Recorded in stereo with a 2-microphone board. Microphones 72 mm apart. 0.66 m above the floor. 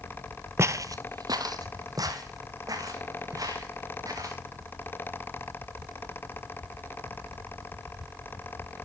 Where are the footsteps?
40° right (ahead or behind), 0.9 m; by 4.4 s 50° right (ahead or behind), 5 m.